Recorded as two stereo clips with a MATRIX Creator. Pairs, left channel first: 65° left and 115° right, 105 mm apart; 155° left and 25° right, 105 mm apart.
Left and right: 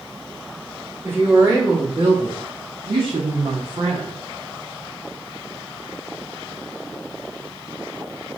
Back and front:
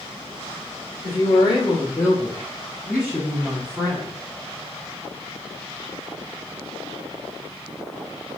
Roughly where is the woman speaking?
Behind.